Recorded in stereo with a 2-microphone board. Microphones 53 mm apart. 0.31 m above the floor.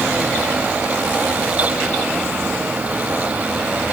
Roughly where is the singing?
No singing in this recording.